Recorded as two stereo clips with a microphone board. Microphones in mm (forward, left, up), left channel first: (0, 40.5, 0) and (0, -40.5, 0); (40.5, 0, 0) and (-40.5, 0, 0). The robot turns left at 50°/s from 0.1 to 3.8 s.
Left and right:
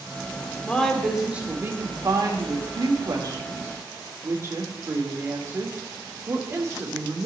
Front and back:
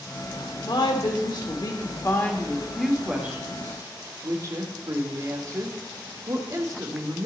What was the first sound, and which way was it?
A woman speaking, 20° left.